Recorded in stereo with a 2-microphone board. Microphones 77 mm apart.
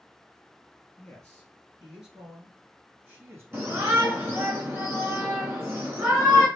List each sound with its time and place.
1.0 s a man speaking: 10° left (ahead or behind), 1.9 m; by 4.5 s 45° right (ahead or behind), 2 m
3.5 s a shout: 30° right (ahead or behind), 1.6 m